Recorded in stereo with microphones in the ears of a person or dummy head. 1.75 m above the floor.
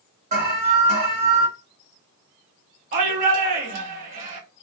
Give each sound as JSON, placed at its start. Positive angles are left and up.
{"t": 0.3, "sound": "an alarm", "side_deg": -40, "distance_m": 1.4}
{"t": 2.9, "sound": "a shout", "side_deg": -40, "distance_m": 1.0}